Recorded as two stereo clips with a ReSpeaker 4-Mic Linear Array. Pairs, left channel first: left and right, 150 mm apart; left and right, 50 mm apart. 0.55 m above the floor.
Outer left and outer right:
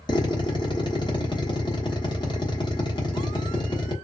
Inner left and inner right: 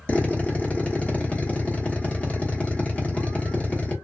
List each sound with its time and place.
0.1 s a drill: 30° left (ahead or behind), 0.9 m